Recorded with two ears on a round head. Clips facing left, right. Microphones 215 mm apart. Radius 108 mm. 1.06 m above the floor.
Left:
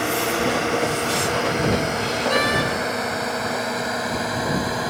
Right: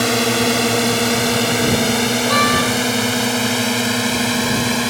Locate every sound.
0.0 s a drone: 55° right (ahead or behind); by 4.9 s 40° right (ahead or behind)
2.3 s a door slam: 5° right (ahead or behind)